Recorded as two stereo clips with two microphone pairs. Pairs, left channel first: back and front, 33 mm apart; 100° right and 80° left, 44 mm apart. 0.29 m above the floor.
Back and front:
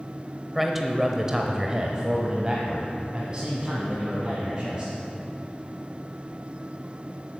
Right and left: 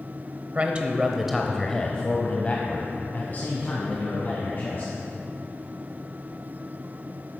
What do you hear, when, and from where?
0.6 s a man speaking: 80° left, 0.9 m; by 4.9 s 65° right, 2.5 m